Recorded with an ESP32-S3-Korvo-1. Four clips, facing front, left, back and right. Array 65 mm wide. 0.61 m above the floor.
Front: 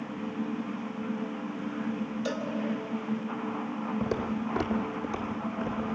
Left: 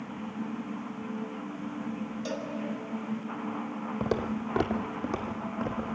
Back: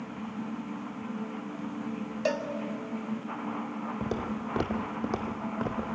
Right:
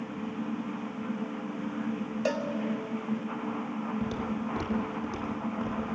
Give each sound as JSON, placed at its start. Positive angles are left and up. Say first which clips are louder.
{"t": 2.2, "sound": "a cowbell", "louder": "right 7 dB, back 6 dB", "azimuth_deg": -135, "distance_m": 1.3}
{"t": 4.0, "sound": "footsteps", "louder": "left 2 dB, front 2 dB", "azimuth_deg": 90, "distance_m": 1.5}